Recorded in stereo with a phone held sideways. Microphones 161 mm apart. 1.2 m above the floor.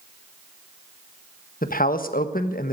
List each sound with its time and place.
1.6 s a man speaking: 60° left (ahead or behind), 1.3 m